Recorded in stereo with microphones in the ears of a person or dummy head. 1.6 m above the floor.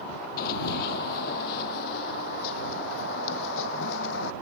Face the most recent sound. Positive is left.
turn(degrees=70)  # may be behind; listen again after turning